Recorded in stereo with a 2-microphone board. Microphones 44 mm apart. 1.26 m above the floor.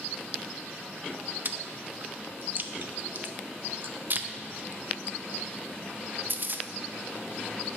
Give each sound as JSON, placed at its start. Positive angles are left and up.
{"t": 1.4, "sound": "chewing", "side_deg": -50, "distance_m": 0.6}